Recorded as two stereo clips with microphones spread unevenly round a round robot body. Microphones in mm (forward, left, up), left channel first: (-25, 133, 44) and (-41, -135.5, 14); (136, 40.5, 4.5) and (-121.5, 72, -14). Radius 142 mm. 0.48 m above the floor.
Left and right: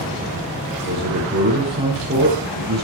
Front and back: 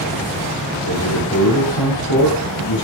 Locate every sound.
0.8 s a man speaking: 40° right, 9 m